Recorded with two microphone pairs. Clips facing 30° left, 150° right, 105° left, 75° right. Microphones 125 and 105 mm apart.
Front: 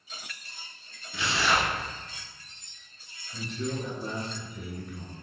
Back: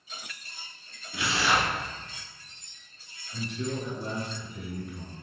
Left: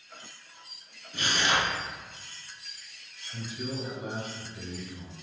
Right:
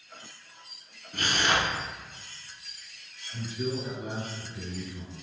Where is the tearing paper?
70° right, 1.5 m.